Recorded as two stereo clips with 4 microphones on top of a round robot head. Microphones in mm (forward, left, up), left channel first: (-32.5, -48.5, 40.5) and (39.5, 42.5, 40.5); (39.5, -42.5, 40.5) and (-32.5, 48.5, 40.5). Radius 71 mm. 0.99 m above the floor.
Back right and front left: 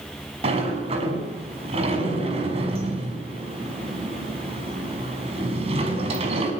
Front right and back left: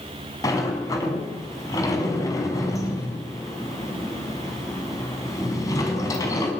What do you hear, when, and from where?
0.4 s a sliding door: 10° left, 6 m